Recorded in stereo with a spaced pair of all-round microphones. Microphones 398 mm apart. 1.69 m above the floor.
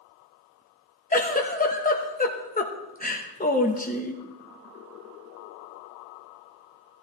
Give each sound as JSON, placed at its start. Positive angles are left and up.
{"t": 1.1, "sound": "a giggle", "side_deg": 20, "distance_m": 1.0}